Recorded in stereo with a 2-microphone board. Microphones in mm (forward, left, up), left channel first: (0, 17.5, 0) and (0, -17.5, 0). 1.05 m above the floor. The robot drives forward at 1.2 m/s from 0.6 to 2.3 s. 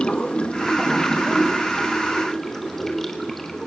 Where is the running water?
30° left (ahead or behind), 1.0 m; by 3.7 s 10° left (ahead or behind), 3 m.